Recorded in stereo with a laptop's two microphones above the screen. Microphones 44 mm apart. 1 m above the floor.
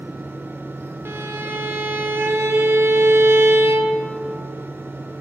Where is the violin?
65° right (ahead or behind), 1.5 m.